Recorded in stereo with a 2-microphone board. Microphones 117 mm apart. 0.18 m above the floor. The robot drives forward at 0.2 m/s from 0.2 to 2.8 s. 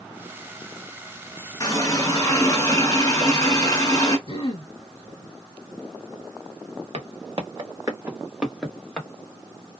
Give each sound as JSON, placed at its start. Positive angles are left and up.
{"t": 1.6, "sound": "a running tap", "side_deg": 35, "distance_m": 1.1}
{"t": 4.3, "sound": "throat clearing", "side_deg": 50, "distance_m": 0.8}
{"t": 6.9, "sound": "footsteps", "side_deg": -60, "distance_m": 0.9}